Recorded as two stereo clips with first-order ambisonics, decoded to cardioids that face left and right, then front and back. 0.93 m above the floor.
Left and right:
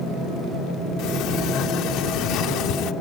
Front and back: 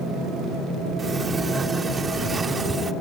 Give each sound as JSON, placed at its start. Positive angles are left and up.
{"t": 1.0, "sound": "a sliding door", "azimuth_deg": 110}